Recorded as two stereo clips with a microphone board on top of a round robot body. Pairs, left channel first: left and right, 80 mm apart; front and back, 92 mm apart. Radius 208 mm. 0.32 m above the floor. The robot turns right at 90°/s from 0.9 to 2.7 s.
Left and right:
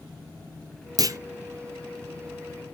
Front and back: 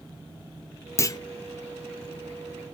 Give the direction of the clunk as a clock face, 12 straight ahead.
2 o'clock.